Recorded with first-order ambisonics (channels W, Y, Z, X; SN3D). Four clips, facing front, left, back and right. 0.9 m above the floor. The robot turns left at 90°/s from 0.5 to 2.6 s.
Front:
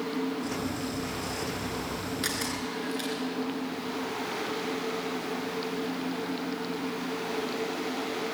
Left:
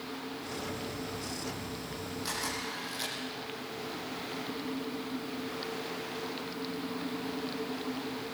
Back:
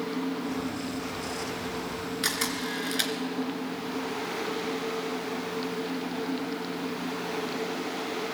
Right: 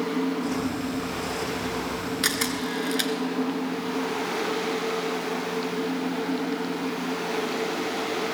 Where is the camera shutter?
95° right, 2.5 m; by 3.1 s 130° right, 2.5 m.